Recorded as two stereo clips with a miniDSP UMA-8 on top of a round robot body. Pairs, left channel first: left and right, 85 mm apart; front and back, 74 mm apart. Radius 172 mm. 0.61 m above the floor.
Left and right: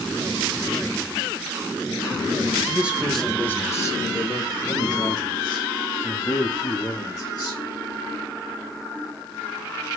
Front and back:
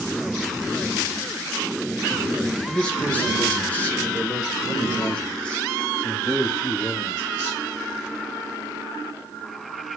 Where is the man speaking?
60° right, 1.0 m; by 7.6 s 75° left, 3.5 m.